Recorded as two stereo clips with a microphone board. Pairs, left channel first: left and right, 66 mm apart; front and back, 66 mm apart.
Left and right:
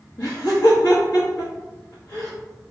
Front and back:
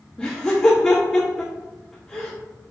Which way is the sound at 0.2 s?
75° left.